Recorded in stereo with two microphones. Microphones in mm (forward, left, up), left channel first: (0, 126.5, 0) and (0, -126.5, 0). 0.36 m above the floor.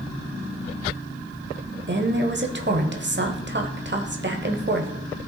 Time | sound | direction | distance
1.9 | a woman speaking | 45° right (ahead or behind) | 1.1 m